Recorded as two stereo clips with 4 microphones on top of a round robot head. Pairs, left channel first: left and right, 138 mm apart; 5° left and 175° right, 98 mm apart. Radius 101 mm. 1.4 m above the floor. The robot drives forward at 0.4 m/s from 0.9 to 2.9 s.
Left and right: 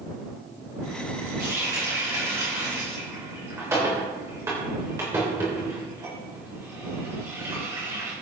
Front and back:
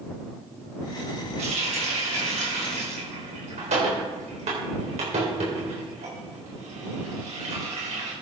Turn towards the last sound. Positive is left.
turn(degrees=-165)